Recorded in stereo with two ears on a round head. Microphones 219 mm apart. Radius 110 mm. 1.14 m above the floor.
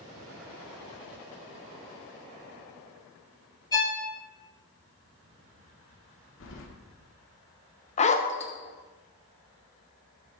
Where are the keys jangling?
60° left (ahead or behind), 1.6 m.